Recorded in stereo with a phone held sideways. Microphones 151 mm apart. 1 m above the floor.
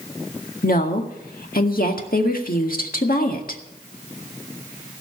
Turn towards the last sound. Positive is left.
turn(degrees=75)  # may be behind; listen again after turning